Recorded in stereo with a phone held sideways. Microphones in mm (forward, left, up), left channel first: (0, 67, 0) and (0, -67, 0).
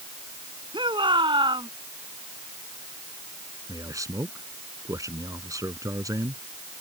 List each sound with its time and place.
0.7 s a shout: 35° right (ahead or behind)
3.7 s a man speaking: 25° right (ahead or behind)